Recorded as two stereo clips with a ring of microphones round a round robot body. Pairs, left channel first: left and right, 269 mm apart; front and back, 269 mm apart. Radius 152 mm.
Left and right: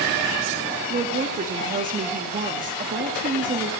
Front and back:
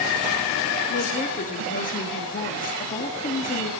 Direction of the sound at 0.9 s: 45° right.